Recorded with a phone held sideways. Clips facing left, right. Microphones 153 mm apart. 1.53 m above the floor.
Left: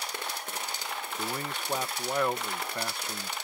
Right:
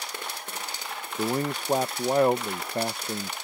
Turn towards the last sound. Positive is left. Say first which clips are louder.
# right 11 dB
turn(degrees=-35)  # may be behind; listen again after turning